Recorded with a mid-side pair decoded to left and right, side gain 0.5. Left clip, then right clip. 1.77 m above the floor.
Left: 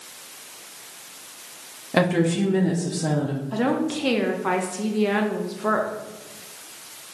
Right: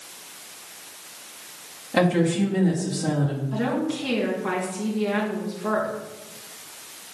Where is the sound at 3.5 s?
45° left, 1.9 m.